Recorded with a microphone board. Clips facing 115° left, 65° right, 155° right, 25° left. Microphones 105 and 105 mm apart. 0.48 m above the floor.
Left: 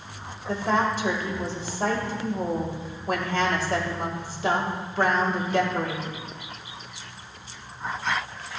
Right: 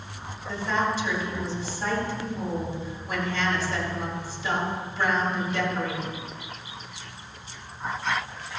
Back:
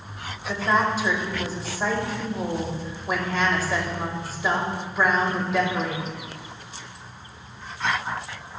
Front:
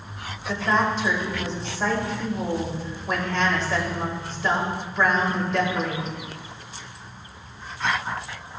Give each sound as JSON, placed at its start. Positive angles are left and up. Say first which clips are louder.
{"t": 0.5, "sound": "a woman speaking", "louder": "left 3 dB, even", "azimuth_deg": 120, "distance_m": 2.0}